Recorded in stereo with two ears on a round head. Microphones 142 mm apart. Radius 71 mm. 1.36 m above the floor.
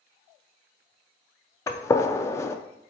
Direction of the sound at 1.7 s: 20° left (ahead or behind).